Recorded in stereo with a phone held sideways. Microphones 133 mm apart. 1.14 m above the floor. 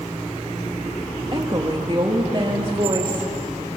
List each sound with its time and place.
1.3 s a woman speaking: 35° right (ahead or behind), 2 m; by 3.3 s 40° right (ahead or behind), 3 m